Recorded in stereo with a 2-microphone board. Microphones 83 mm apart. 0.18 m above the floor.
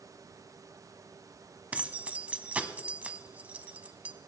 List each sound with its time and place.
1.7 s keys jangling: 20° right (ahead or behind), 1.0 m